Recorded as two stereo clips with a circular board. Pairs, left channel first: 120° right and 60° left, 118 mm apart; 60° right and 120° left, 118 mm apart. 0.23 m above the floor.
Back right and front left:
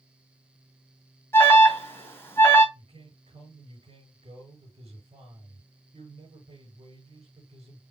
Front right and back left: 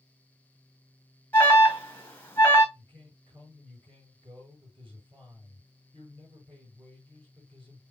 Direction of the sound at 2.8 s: 80° left.